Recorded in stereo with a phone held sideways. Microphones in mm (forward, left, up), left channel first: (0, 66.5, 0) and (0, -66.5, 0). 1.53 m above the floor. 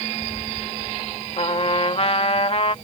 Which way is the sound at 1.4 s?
45° left (ahead or behind).